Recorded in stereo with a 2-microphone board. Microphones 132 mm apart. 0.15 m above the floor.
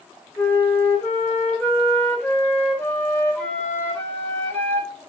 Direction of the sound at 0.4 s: 15° left (ahead or behind).